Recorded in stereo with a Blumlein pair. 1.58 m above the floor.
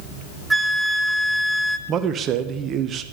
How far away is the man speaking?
About 1.0 m.